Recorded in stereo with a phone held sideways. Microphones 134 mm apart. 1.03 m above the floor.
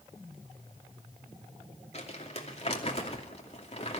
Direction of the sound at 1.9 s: 45° left (ahead or behind).